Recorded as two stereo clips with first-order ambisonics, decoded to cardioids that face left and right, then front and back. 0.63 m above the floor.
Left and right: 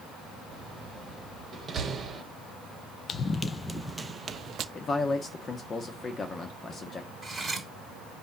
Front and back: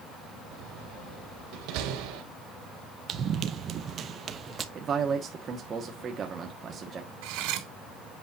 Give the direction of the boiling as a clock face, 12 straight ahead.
No boiling in this recording.